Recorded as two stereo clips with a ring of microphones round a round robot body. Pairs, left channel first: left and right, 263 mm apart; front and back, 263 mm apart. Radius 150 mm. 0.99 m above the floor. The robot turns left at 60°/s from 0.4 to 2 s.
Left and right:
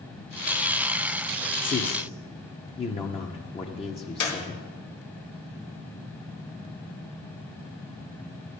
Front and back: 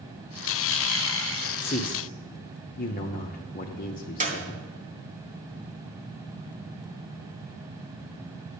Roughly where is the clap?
Behind left.